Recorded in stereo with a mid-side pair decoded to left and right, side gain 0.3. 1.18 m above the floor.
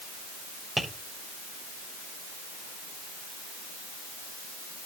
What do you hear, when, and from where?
0.8 s tapping: 5° right, 6.5 m